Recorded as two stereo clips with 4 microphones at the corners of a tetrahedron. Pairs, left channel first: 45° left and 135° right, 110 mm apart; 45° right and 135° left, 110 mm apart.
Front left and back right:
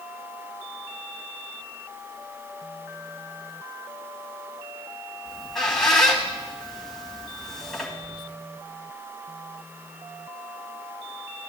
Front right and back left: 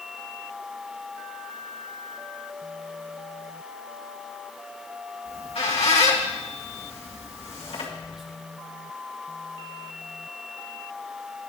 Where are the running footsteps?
No running footsteps in this recording.